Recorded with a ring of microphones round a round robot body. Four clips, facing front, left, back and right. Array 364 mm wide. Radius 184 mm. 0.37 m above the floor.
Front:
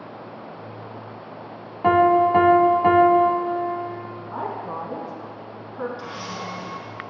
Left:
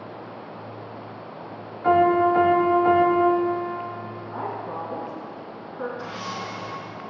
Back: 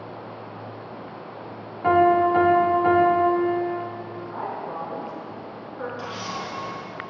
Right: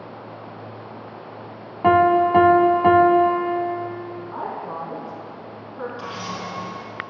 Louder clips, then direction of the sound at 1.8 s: Right 2 dB, front 1 dB; 65° right.